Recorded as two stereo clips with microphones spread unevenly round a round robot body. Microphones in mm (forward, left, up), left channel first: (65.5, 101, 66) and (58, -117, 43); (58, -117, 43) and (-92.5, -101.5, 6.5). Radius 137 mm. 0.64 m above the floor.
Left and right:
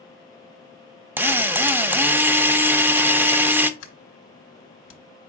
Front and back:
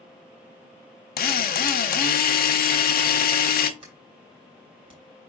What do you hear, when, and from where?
1.2 s a drill: 15° right, 0.7 m
3.8 s a sliding door: 120° left, 1.0 m